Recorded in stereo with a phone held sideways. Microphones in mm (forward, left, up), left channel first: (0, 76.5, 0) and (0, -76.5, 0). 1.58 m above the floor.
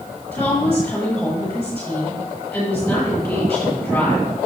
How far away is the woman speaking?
About 7.5 m.